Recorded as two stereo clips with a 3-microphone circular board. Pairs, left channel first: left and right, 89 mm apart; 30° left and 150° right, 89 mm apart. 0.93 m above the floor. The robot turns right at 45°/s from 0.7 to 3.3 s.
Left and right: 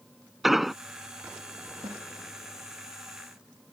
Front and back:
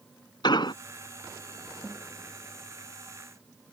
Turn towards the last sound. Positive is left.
turn(degrees=-10)